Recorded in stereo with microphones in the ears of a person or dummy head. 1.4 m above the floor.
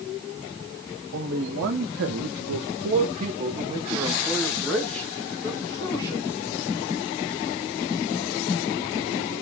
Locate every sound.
1.1 s a man speaking: 70° right (ahead or behind), 1.2 m; by 6.3 s 25° left (ahead or behind), 1.9 m